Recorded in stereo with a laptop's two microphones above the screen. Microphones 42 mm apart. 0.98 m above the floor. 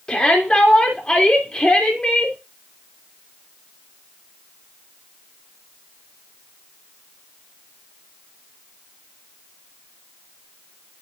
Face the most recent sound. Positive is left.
turn(degrees=25)  # may be behind; listen again after turning